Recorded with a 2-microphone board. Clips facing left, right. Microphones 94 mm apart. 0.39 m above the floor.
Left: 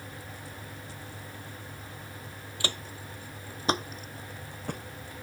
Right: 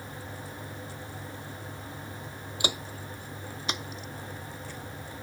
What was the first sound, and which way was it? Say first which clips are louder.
Footsteps: right 3 dB; 15° right (ahead or behind).